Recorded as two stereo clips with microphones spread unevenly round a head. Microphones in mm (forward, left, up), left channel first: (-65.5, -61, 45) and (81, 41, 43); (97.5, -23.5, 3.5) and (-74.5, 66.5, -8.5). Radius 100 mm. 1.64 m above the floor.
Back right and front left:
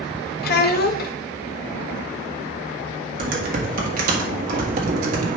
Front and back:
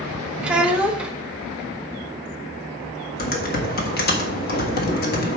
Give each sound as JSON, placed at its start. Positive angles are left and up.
{"t": 0.4, "sound": "a child speaking", "azimuth_deg": -120, "distance_m": 0.7}
{"t": 3.2, "sound": "typing on a keyboard", "azimuth_deg": -5, "distance_m": 1.5}